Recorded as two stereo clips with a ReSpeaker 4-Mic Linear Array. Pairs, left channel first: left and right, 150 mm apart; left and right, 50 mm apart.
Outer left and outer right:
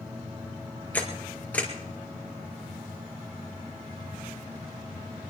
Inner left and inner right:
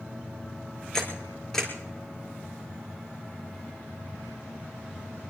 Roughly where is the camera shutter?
Centre.